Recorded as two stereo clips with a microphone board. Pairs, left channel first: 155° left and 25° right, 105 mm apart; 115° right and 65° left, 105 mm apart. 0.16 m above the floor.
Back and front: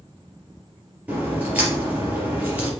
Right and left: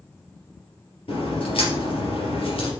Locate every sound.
1.1 s a crack: 95° right, 3.5 m